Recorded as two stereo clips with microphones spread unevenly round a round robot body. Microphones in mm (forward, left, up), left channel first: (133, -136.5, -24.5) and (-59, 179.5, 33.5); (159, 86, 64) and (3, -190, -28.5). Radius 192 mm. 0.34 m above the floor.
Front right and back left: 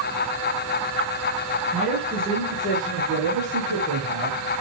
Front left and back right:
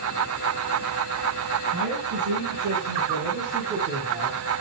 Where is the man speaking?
165° right, 5 m.